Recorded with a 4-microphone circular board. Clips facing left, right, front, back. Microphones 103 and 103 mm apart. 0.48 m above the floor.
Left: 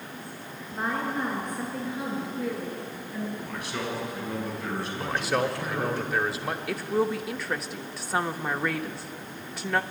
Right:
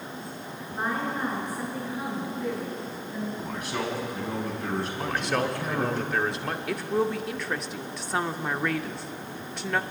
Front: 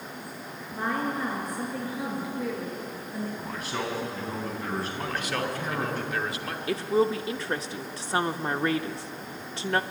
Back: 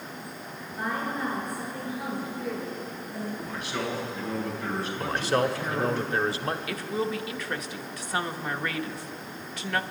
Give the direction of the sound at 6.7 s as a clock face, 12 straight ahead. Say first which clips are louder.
Even, front 5 dB; 12 o'clock.